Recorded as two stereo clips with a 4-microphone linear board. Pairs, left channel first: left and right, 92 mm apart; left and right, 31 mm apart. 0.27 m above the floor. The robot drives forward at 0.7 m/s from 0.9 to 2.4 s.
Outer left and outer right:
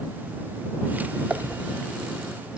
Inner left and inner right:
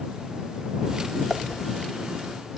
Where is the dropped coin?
15° right (ahead or behind), 0.7 m; by 2.6 s 10° right (ahead or behind), 1.4 m.